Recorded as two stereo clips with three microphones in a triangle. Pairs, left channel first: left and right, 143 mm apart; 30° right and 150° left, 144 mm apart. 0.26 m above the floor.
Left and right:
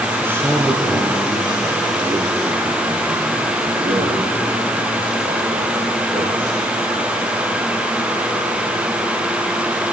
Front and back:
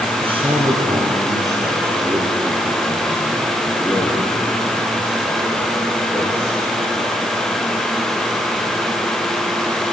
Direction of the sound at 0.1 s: 165° right.